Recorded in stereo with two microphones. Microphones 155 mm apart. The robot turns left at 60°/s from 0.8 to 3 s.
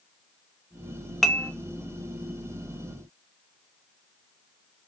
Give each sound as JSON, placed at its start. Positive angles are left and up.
{"t": 1.2, "sound": "dishes clattering", "side_deg": 0, "distance_m": 0.7}